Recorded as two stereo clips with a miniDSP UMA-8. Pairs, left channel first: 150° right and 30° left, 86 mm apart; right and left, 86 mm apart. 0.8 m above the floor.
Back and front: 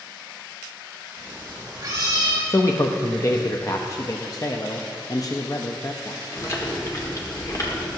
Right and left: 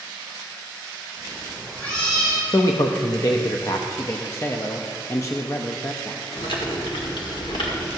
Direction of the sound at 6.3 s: 100° right.